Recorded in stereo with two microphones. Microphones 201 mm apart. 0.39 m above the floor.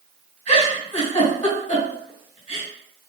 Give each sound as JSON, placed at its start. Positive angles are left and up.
{"t": 0.5, "sound": "a giggle", "side_deg": 35, "distance_m": 2.5}